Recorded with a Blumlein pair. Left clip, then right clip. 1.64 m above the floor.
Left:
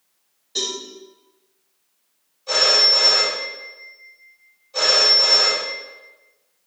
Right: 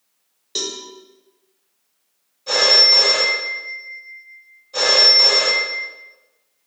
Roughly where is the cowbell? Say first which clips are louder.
Left 1 dB; ahead right.